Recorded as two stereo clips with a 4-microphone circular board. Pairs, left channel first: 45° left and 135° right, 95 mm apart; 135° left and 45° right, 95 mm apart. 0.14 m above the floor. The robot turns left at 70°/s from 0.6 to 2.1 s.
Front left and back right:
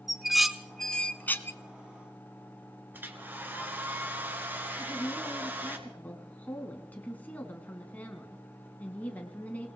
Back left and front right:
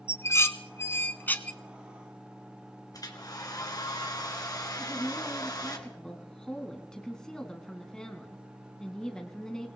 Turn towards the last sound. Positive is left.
turn(degrees=65)